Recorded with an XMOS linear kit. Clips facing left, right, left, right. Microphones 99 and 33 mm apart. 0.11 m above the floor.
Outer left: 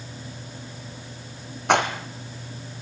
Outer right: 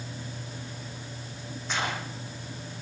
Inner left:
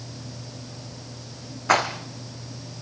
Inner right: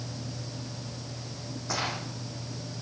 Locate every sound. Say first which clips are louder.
1.7 s a rattle: outer left 11 dB, inner left 11 dB; 80° left, 3 m